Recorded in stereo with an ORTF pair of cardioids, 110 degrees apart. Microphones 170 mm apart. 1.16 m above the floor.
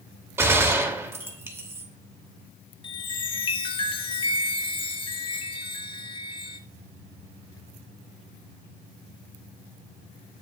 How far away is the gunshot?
About 2.5 m.